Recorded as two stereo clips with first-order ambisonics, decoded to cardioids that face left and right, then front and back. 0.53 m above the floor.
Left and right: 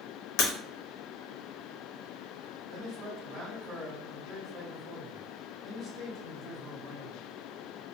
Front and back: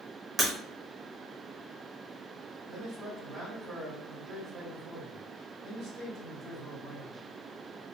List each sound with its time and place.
0.4 s breaking glass: 100° left, 0.7 m
2.7 s a man speaking: 155° right, 1.1 m